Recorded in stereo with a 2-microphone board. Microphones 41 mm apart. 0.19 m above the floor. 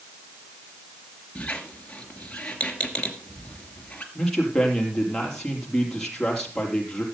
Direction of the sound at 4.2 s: 10° left (ahead or behind).